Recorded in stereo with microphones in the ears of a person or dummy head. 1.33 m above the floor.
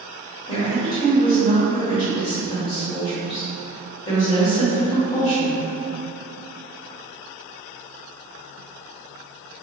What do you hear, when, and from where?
0.5 s a woman speaking: 20° left (ahead or behind), 1.6 m